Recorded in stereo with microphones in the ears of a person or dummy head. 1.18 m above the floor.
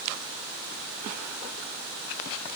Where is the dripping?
No dripping in this recording.